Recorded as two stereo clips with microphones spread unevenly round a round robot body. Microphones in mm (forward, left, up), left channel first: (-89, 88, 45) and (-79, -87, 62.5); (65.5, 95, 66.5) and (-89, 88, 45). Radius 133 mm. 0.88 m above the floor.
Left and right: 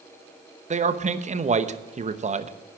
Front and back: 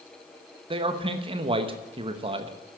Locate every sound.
0.7 s a man speaking: 135° right, 1.0 m